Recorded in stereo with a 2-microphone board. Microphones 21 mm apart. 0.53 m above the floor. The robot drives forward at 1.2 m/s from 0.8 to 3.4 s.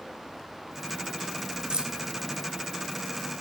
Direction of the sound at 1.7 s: 50° right (ahead or behind).